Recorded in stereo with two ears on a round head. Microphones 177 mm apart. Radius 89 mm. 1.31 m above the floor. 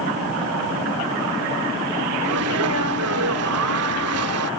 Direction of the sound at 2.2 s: 80° right.